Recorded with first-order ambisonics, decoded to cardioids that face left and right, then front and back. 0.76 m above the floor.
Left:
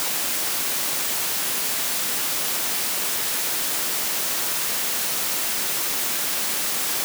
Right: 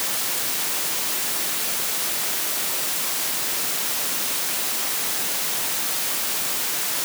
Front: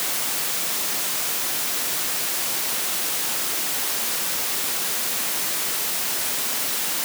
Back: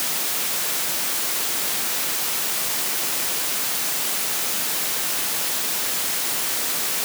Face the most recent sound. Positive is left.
No sound to turn to.